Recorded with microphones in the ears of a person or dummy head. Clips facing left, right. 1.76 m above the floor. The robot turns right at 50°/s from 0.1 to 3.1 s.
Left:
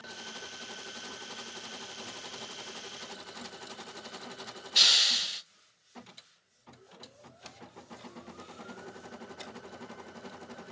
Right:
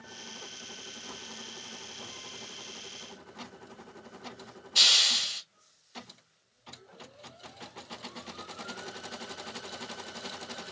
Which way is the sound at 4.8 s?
20° left (ahead or behind).